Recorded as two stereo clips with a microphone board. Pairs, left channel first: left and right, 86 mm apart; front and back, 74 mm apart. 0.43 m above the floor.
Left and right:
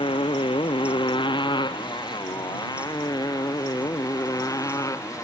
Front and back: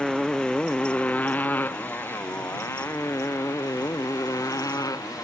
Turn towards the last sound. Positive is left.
turn(degrees=40)